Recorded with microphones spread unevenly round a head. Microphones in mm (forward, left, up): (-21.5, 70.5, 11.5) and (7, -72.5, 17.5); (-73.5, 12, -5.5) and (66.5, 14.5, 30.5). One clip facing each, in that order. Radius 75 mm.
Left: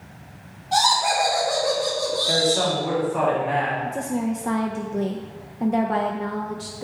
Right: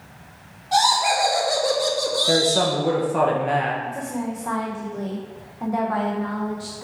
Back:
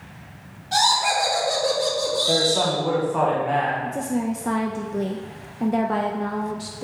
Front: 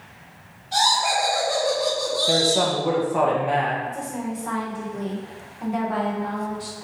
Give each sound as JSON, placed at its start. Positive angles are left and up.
{"t": 0.7, "sound": "laughter", "azimuth_deg": -165, "distance_m": 1.4}
{"t": 2.3, "sound": "a man speaking", "azimuth_deg": -90, "distance_m": 1.1}
{"t": 3.8, "sound": "a woman speaking", "azimuth_deg": 160, "distance_m": 0.6}